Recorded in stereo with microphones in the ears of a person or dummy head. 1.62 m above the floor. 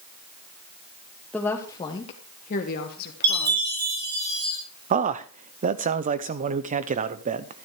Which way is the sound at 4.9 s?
45° right (ahead or behind).